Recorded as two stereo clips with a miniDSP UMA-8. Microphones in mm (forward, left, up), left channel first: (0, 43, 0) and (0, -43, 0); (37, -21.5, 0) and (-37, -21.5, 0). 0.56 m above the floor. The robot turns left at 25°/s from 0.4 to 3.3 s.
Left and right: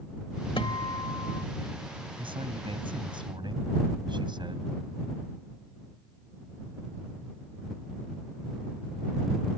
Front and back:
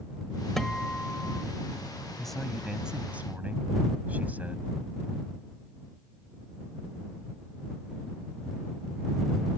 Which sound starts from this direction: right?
A man speaking, at 2.2 s.